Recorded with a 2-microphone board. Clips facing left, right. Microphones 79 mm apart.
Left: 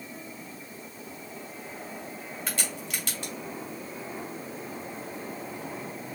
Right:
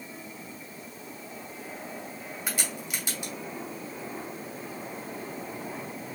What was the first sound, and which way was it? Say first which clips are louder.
A crack: right 1 dB; 10° right (ahead or behind).